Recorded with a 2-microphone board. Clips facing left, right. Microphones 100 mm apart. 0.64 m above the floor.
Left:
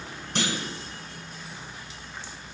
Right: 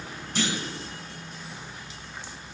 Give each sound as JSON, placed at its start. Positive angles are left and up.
{"t": 0.3, "sound": "a clunk", "side_deg": 65, "distance_m": 2.5}